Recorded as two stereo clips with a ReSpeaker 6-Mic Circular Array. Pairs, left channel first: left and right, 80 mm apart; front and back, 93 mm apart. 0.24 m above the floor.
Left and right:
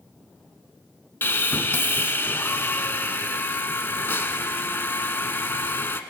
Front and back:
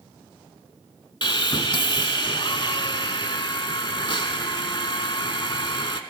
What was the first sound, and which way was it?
Sawing, 25° left.